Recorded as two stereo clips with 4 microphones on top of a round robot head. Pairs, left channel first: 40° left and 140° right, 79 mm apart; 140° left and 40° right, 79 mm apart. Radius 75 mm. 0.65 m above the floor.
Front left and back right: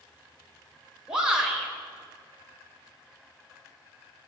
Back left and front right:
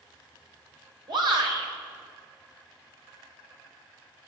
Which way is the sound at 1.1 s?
60° right.